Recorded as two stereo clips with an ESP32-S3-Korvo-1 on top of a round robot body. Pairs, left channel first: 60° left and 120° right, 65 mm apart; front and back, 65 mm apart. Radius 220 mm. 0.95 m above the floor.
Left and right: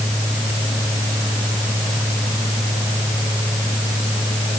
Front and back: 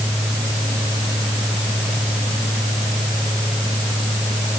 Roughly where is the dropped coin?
No dropped coin in this recording.